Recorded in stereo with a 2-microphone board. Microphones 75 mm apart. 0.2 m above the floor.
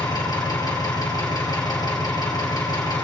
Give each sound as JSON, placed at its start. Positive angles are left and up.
{"t": 0.0, "sound": "an engine running", "side_deg": 65, "distance_m": 2.5}